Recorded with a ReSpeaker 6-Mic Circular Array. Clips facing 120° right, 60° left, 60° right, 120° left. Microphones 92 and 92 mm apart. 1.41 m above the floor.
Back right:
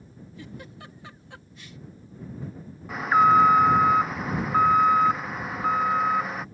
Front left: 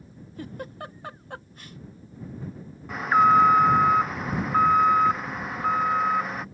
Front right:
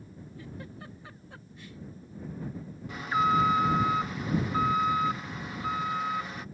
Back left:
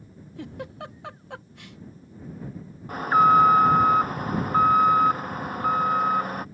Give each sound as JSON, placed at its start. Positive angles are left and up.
{"t": 0.4, "sound": "a giggle", "azimuth_deg": 105}
{"t": 2.9, "sound": "an alarm", "azimuth_deg": 150}